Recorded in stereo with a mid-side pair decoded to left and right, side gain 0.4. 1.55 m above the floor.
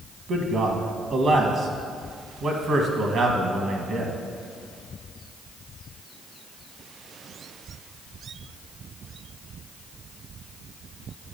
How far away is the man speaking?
About 1.5 m.